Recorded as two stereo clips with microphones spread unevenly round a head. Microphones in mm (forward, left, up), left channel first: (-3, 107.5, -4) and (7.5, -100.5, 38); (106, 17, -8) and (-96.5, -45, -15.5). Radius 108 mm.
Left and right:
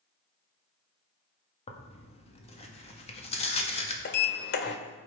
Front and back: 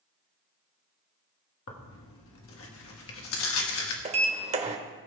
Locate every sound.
1.7 s tearing paper: 40° left, 1.7 m
4.0 s a sliding door: 140° left, 1.0 m